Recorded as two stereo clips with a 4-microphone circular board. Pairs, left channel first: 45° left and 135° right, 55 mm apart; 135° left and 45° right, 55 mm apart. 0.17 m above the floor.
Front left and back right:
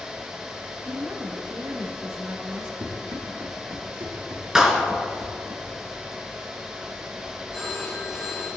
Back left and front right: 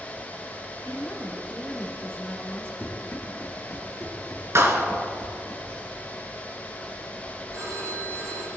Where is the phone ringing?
55° right, 4.5 m.